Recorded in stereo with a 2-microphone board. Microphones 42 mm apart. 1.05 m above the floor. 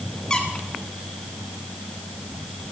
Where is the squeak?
20° left (ahead or behind), 1.8 m.